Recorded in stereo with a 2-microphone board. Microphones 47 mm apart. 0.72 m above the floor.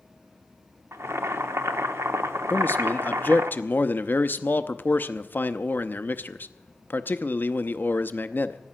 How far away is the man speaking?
About 0.7 m.